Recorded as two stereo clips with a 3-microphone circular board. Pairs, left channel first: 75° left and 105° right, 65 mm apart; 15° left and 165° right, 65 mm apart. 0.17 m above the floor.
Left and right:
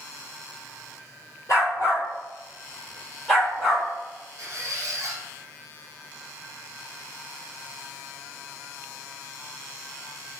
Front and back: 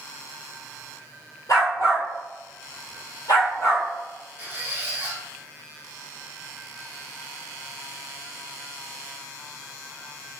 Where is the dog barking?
40° left, 1.6 m; by 3.9 s 20° right, 1.8 m.